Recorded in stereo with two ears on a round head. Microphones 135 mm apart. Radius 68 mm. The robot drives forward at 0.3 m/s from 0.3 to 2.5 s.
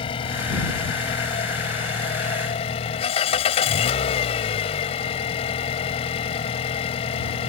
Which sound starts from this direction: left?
An engine running, at 0.0 s.